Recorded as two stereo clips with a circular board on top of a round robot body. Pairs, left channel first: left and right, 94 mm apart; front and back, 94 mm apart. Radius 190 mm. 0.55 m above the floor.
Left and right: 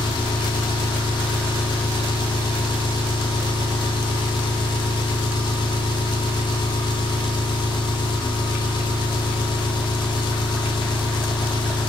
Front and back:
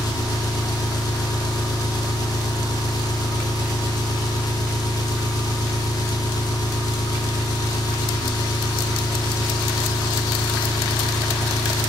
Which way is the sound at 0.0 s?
50° left.